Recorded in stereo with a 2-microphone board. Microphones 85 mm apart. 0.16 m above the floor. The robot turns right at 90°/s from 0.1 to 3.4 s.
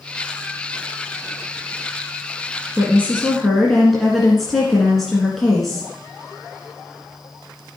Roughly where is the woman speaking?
Ahead right.